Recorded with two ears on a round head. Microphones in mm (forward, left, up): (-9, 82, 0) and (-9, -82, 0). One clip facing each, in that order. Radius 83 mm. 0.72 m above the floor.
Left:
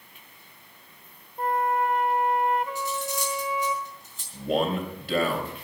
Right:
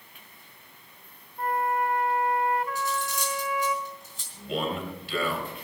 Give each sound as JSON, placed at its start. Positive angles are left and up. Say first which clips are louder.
{"t": 1.4, "sound": "a flute", "louder": "left 2 dB", "side_deg": 20, "distance_m": 0.7}
{"t": 2.8, "sound": "cutlery clinking", "louder": "even", "side_deg": -65, "distance_m": 4.5}
{"t": 4.3, "sound": "a man speaking", "louder": "left 5 dB", "side_deg": 40, "distance_m": 3.0}